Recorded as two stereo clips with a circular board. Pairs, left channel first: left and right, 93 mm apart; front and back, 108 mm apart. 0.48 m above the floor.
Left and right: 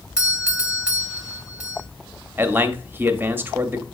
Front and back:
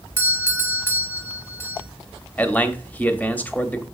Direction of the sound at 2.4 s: 55° right.